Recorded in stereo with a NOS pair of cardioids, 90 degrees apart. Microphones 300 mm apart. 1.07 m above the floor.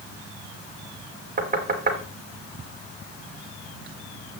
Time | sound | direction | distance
1.4 | knocking | 30° right | 2.5 m